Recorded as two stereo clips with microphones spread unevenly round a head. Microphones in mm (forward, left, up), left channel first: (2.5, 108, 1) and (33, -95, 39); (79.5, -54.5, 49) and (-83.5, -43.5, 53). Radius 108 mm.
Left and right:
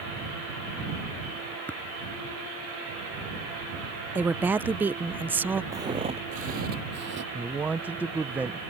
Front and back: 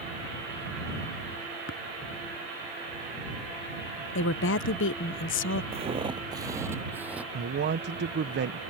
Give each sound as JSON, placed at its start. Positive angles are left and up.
{"t": 1.7, "sound": "tapping", "azimuth_deg": 15}
{"t": 4.2, "sound": "a woman speaking", "azimuth_deg": 0}
{"t": 5.7, "sound": "footsteps", "azimuth_deg": -145}
{"t": 7.3, "sound": "a man speaking", "azimuth_deg": -170}